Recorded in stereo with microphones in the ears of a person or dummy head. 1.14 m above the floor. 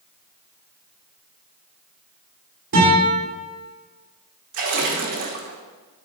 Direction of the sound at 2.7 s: 65° right (ahead or behind).